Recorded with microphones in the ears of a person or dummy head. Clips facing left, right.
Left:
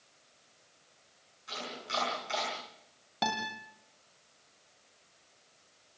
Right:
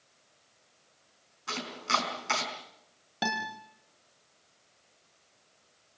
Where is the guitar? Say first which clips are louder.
Even; 5° right (ahead or behind), 1.7 m.